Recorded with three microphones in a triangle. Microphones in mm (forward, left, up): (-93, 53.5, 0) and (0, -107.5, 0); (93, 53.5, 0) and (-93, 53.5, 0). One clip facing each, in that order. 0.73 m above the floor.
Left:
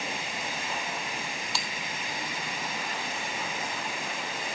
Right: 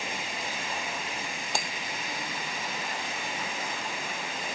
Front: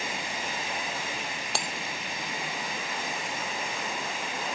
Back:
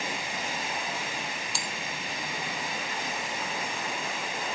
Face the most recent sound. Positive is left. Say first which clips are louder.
# right 7 dB, front 3 dB
turn(degrees=-25)